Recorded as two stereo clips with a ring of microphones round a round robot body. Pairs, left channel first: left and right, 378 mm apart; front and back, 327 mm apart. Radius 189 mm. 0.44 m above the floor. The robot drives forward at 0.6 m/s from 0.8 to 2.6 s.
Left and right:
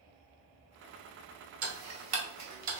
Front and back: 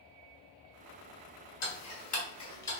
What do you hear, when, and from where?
1.6 s ticking: 45° right, 1.4 m; by 2.8 s 75° right, 1.2 m